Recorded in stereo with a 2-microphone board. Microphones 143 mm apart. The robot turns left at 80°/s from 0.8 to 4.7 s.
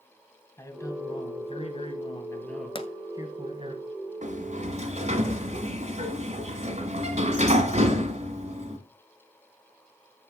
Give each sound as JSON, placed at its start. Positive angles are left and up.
{"t": 0.6, "sound": "a man speaking", "azimuth_deg": 150, "distance_m": 2.0}
{"t": 2.8, "sound": "a pop", "side_deg": 40, "distance_m": 0.9}
{"t": 4.2, "sound": "a sliding door", "azimuth_deg": -75, "distance_m": 1.7}